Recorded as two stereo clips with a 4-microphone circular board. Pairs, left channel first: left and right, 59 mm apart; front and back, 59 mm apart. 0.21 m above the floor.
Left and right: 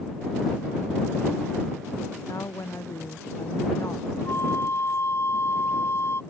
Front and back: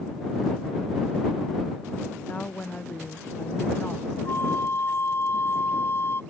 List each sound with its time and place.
2.3 s a woman speaking: 65° left; by 4.2 s 60° left
4.2 s a flute: 50° left